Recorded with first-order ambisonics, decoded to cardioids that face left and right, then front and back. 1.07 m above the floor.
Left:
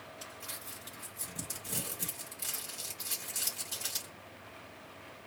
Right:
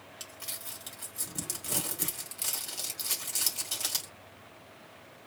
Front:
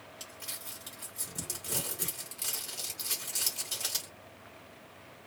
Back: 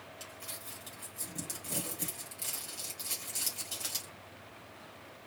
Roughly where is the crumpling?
Right.